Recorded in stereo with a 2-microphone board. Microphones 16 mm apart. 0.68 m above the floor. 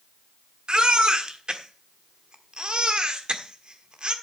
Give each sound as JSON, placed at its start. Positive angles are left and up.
{"t": 0.7, "sound": "a baby crying", "side_deg": -60, "distance_m": 1.4}